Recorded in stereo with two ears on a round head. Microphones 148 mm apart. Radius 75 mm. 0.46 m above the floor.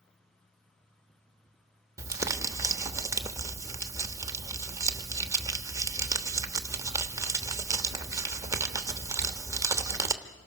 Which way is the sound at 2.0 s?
20° right (ahead or behind).